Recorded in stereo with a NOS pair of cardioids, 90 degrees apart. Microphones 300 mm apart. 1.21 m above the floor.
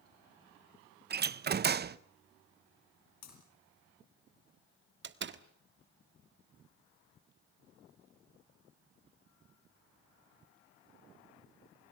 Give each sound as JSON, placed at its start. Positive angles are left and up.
{"t": 1.1, "sound": "a door slam", "azimuth_deg": -35, "distance_m": 0.8}
{"t": 3.2, "sound": "breaking glass", "azimuth_deg": 60, "distance_m": 8.5}
{"t": 5.0, "sound": "a door slam", "azimuth_deg": -40, "distance_m": 1.5}